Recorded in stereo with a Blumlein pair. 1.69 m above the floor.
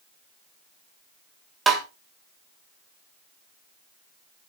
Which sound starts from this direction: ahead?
Tapping, at 1.7 s.